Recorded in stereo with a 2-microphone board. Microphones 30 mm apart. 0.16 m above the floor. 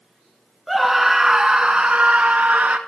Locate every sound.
0.7 s a scream: centre (ahead or behind), 2 m; by 2.8 s 55° right (ahead or behind), 2.5 m